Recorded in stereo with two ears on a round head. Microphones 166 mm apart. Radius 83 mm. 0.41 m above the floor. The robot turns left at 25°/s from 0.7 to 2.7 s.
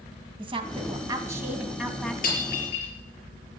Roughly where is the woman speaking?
Behind right.